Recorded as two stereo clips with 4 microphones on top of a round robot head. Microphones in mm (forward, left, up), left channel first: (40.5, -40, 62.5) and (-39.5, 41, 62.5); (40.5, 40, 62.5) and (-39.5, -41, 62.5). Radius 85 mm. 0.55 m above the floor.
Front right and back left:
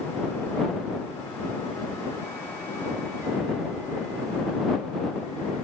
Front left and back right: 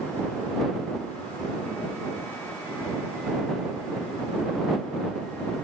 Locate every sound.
Only background noise.